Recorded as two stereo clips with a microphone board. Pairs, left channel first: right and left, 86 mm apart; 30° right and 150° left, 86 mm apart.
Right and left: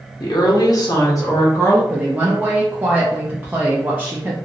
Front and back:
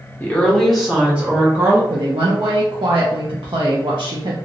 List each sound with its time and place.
0.2 s a woman speaking: 95° right, 1.0 m; by 1.8 s 150° right, 1.8 m
1.9 s a woman speaking: 155° left, 0.6 m